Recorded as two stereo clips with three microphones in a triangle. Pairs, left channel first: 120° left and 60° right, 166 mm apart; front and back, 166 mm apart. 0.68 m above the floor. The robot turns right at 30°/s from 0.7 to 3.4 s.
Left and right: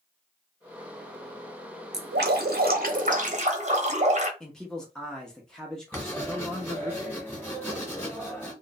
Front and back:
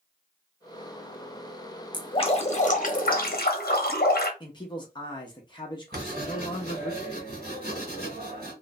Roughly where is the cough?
No cough in this recording.